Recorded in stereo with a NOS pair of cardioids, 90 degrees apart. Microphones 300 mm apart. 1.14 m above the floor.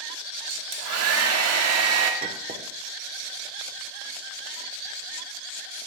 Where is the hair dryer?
60° right, 1.4 m.